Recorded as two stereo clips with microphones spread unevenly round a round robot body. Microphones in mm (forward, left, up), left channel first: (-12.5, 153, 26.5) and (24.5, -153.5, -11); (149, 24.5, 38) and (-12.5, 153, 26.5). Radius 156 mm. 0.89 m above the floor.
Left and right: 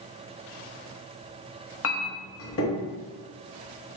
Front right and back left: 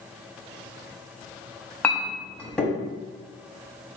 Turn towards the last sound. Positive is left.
turn(degrees=45)